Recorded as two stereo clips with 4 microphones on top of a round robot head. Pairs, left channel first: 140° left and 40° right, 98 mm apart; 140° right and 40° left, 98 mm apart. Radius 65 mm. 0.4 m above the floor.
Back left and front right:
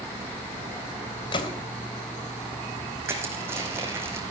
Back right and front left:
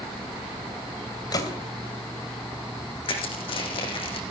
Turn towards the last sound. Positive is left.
turn(degrees=-105)